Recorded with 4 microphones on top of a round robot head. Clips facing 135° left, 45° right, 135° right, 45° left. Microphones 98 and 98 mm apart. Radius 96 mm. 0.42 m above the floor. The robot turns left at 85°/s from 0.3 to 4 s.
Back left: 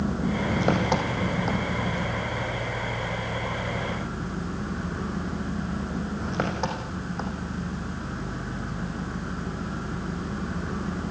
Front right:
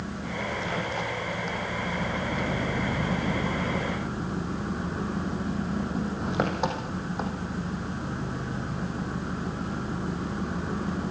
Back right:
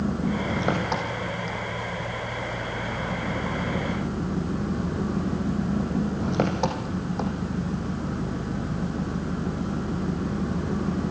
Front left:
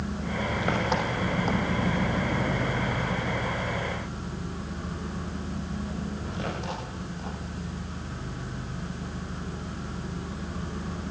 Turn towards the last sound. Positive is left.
turn(degrees=-125)